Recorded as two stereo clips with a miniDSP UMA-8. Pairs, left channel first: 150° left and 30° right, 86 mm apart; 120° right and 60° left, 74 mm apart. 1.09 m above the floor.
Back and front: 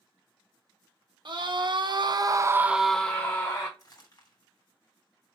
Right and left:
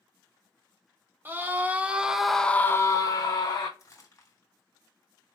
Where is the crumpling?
165° right, 2.5 m.